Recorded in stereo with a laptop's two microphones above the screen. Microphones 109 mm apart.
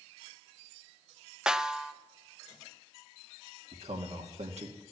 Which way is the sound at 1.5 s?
5° right (ahead or behind).